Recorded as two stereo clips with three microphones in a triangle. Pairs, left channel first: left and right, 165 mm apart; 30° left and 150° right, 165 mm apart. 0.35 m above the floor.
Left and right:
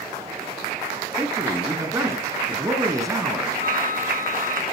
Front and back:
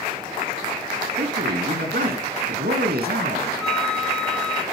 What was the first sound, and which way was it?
A man speaking, 160° right.